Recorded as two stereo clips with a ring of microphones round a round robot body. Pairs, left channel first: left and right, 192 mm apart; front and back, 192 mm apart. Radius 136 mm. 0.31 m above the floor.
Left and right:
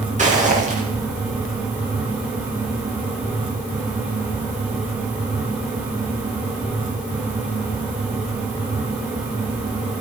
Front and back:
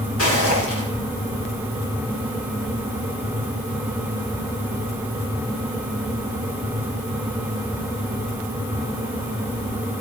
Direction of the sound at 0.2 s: 40° right.